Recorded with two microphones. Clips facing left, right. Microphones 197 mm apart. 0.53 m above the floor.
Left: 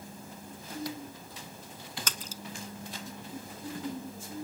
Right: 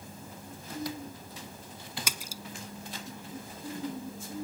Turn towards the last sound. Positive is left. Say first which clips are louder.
# even
turn(degrees=-10)  # may be behind; listen again after turning